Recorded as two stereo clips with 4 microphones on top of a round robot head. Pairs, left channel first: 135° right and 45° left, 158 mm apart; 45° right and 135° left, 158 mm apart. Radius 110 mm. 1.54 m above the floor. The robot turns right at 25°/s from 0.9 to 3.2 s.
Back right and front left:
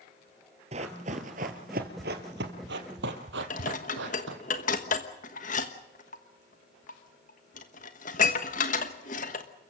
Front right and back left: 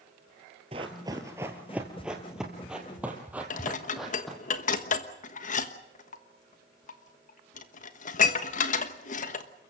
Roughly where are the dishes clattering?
Right.